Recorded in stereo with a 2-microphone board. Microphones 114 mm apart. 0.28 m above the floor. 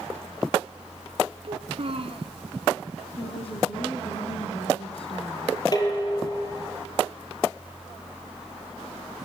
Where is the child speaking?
55° right (ahead or behind), 2.5 m.